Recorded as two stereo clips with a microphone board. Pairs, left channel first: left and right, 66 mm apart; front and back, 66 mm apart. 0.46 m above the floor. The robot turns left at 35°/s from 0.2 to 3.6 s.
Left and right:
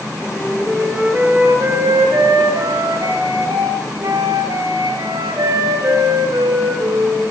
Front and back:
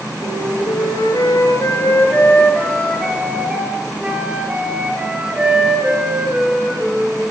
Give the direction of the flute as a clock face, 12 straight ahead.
12 o'clock.